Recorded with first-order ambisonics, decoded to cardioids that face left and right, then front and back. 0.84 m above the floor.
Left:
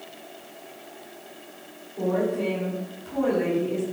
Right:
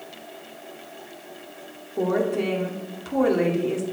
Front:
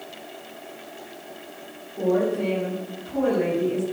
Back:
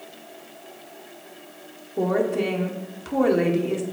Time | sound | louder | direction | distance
2.0 | a woman speaking | right 2 dB, even | 145° right | 1.9 m